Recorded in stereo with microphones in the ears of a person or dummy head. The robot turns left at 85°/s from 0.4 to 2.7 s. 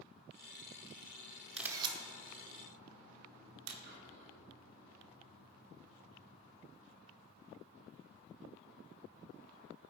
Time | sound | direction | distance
1.6 | a camera shutter | centre (ahead or behind) | 0.8 m
3.8 | whispering | 60° right (ahead or behind) | 1.9 m